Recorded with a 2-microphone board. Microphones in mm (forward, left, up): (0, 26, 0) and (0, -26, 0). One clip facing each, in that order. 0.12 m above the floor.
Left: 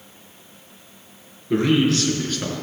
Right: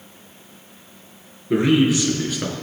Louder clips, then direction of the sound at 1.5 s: Right 2 dB; 15° right (ahead or behind).